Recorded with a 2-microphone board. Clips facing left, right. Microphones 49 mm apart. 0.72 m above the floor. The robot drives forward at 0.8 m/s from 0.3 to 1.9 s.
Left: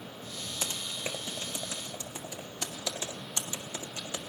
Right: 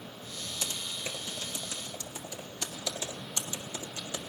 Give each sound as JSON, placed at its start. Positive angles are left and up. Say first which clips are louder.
{"t": 0.6, "sound": "typing on a keyboard", "louder": "left 1 dB", "side_deg": 35, "distance_m": 1.3}